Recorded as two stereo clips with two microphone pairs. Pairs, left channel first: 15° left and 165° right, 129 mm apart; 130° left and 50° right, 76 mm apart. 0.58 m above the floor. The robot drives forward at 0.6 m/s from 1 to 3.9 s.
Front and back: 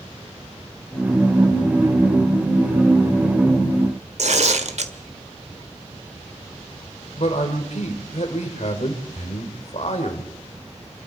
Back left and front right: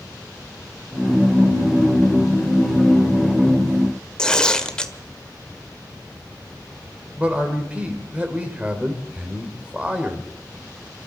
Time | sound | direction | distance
4.2 | tearing paper | 150° right | 1.5 m
7.2 | a man speaking | 20° left | 2 m